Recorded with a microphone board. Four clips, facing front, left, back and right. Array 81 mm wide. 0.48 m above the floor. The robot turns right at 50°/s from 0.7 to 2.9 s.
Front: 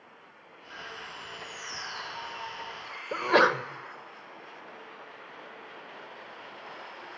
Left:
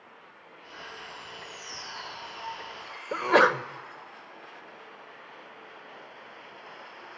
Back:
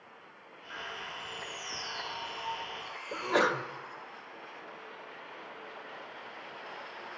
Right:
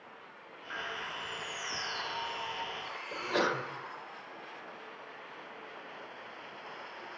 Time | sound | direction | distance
0.7 | a bird | 100° right | 7 m
3.1 | a sneeze | 65° left | 1.5 m